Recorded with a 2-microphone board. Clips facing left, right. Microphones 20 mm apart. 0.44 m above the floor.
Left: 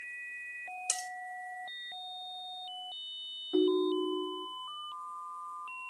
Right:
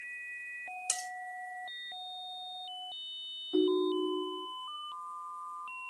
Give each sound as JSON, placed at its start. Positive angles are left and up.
{"t": 0.9, "sound": "cutlery clinking", "side_deg": 20, "distance_m": 0.7}
{"t": 3.5, "sound": "a ringtone", "side_deg": 15, "distance_m": 0.7}